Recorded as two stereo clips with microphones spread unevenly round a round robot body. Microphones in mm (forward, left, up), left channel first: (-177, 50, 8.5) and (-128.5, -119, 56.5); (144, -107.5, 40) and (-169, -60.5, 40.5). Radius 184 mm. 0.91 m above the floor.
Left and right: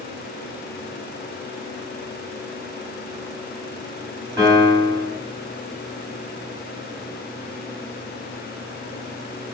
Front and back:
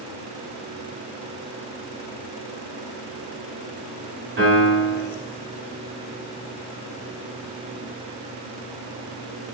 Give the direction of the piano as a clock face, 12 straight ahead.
5 o'clock.